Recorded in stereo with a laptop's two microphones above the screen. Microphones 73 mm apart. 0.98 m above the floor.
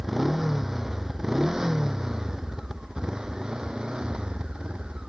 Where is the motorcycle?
5° right (ahead or behind); by 5.1 s 15° right (ahead or behind).